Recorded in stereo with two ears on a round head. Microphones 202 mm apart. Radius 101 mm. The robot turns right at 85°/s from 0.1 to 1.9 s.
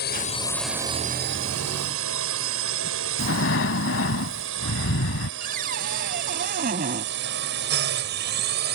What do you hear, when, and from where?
0.0 s a drone: 45° left (ahead or behind); by 8.8 s 45° right (ahead or behind)
3.2 s breathing: 60° left (ahead or behind)
5.4 s a cupboard door: 40° right (ahead or behind)